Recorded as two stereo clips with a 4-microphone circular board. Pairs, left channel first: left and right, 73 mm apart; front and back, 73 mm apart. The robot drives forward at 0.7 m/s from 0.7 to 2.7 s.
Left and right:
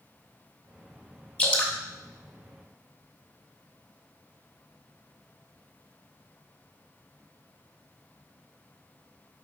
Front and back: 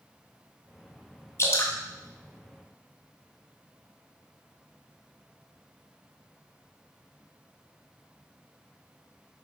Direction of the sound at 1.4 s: 25° left.